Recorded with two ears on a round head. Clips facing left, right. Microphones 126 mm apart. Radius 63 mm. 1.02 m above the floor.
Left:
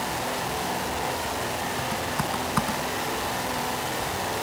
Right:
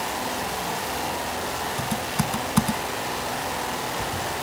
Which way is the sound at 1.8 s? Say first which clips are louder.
Right 1 dB; 30° right (ahead or behind).